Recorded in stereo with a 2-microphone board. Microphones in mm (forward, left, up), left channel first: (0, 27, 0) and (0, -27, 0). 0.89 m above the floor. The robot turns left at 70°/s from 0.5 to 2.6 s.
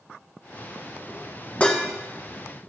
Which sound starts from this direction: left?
Dishes clattering, at 1.6 s.